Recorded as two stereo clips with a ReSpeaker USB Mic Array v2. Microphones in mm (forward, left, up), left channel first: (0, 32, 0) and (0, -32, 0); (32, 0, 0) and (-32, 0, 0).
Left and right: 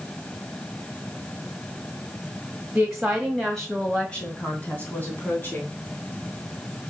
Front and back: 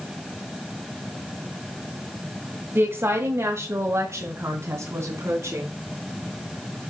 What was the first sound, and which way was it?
A woman speaking, 165° right.